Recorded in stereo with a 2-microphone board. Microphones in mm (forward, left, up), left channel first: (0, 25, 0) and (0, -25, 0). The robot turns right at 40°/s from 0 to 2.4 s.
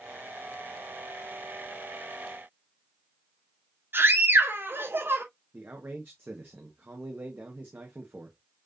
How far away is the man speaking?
About 1.4 m.